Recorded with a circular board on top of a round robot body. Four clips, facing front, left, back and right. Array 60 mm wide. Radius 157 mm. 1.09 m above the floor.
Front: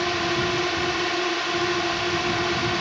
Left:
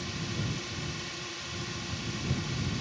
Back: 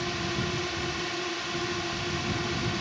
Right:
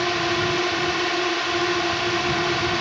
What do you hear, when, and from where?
0.0 s a drone: 65° right